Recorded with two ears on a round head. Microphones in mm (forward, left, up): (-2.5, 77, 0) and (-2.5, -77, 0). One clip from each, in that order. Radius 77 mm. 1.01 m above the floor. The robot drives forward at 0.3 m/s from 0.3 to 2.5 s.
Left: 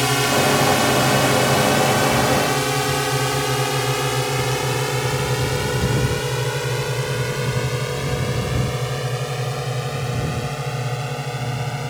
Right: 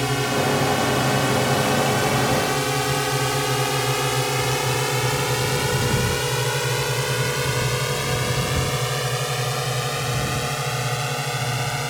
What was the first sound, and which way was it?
A drone, 25° left (ahead or behind).